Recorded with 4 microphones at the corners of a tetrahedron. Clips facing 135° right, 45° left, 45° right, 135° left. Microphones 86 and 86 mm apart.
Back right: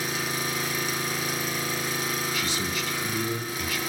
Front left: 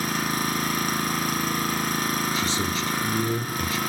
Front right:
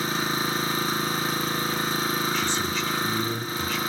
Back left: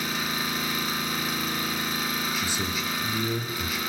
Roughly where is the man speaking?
Ahead left.